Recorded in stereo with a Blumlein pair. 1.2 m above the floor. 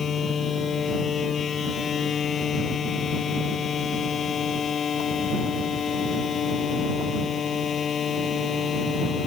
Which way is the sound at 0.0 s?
20° left.